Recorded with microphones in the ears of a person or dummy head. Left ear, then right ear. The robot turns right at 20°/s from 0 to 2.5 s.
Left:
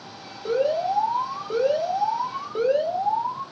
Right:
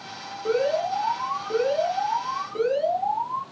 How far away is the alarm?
About 1.6 m.